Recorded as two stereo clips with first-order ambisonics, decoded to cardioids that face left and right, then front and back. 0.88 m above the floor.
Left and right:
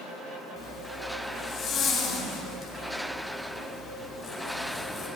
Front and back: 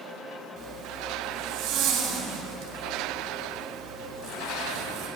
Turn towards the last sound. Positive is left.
turn(degrees=140)